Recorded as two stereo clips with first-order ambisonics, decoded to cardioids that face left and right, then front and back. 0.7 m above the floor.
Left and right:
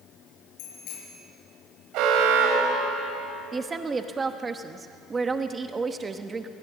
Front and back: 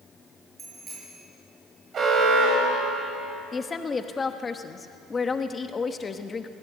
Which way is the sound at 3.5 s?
45° right.